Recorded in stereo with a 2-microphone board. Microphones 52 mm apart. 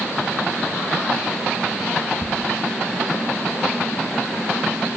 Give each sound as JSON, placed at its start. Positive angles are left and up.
{"t": 2.2, "sound": "a thud", "side_deg": -25, "distance_m": 4.5}